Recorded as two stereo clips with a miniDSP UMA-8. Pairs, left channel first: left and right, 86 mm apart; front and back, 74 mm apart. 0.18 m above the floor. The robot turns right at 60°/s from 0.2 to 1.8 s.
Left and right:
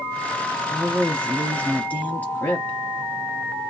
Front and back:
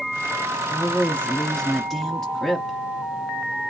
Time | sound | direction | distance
0.7 | a woman speaking | 10° left | 1.0 m